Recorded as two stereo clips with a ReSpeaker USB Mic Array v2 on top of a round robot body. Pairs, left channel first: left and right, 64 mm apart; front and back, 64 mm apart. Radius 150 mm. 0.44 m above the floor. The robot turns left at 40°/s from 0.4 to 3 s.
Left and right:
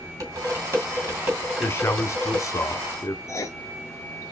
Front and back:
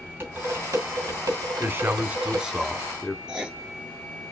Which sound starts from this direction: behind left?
A man speaking, at 1.6 s.